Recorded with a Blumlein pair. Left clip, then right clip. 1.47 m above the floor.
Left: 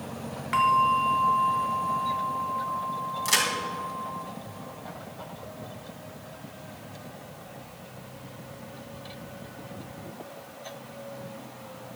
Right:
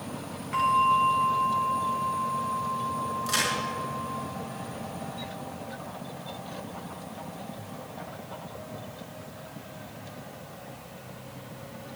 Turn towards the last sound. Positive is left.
turn(degrees=45)